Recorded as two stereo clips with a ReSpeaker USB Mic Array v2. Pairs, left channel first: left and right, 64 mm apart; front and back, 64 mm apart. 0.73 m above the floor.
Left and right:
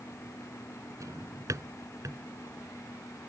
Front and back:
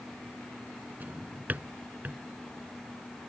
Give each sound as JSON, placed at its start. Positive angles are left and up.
{"t": 1.0, "sound": "a drawer", "azimuth_deg": -115}